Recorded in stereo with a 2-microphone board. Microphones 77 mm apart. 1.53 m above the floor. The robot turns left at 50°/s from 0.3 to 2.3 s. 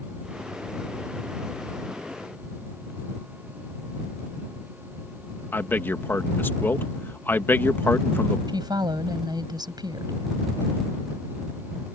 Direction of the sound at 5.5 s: 25° left (ahead or behind).